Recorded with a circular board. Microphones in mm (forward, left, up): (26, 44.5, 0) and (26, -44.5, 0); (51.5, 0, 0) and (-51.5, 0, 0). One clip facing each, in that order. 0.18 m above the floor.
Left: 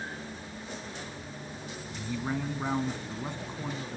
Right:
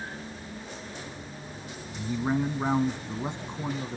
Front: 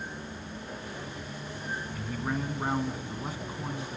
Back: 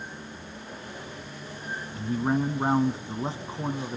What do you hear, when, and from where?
1.9 s a man speaking: 145° right, 1.3 m